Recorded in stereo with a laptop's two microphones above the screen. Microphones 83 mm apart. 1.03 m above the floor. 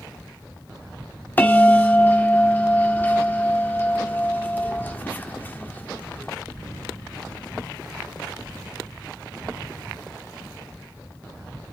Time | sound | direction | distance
1.4 | a bell | 20° left (ahead or behind) | 1.5 m